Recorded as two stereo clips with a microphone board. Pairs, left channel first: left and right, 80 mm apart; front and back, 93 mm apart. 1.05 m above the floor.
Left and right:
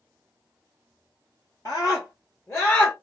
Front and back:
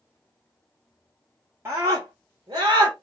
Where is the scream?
125° left, 1.3 m; by 2.9 s 155° left, 1.5 m.